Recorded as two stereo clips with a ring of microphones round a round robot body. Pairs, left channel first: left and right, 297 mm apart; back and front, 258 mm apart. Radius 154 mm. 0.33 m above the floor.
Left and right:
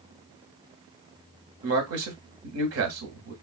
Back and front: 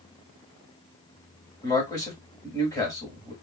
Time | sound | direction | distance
1.6 | a man speaking | 105° right | 1.3 m